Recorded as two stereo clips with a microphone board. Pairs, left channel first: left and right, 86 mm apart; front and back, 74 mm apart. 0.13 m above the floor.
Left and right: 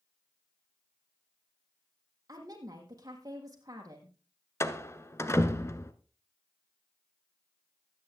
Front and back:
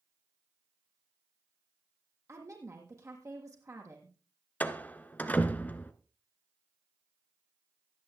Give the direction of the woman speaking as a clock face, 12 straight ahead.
4 o'clock.